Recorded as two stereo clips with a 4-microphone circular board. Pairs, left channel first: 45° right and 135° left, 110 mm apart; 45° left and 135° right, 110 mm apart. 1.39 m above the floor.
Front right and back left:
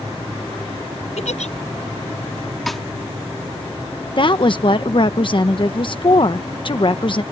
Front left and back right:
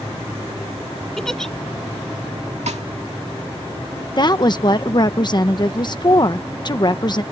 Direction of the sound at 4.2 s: 5° right.